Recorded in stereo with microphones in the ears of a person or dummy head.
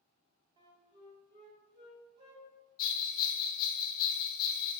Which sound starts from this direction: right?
A flute, at 0.6 s.